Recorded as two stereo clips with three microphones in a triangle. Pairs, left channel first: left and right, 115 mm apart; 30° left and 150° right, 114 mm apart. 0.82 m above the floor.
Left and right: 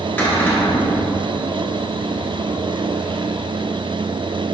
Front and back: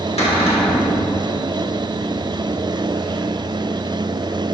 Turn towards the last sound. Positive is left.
turn(degrees=20)